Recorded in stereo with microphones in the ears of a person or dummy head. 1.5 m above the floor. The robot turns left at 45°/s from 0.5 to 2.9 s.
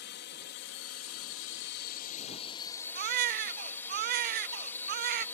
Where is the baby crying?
50° right (ahead or behind).